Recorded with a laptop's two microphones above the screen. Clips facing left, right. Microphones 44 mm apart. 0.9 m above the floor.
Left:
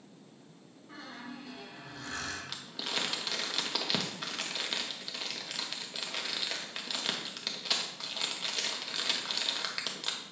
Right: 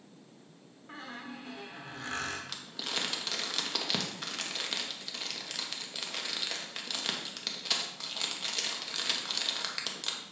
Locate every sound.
0.9 s a squeak: 50° right (ahead or behind), 1.4 m
2.5 s crumpling: 5° left (ahead or behind), 1.0 m